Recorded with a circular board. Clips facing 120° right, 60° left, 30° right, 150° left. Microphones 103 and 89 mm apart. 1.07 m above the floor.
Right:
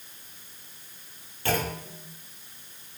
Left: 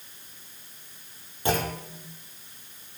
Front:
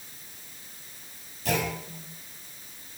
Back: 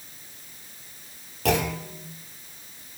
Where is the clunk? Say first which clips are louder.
Left 1 dB, back 5 dB; 130° left, 2.5 m.